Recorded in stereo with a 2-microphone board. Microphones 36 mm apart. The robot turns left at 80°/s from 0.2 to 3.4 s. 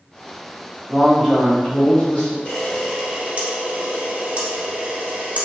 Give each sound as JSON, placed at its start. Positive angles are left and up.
{"t": 0.9, "sound": "a man speaking", "azimuth_deg": -165, "distance_m": 1.7}
{"t": 2.5, "sound": "a camera shutter", "side_deg": 35, "distance_m": 1.3}